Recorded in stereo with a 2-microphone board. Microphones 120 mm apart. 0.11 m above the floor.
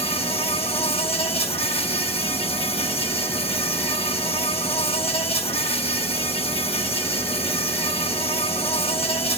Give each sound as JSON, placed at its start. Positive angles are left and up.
{"t": 0.0, "sound": "an insect", "side_deg": 55, "distance_m": 1.2}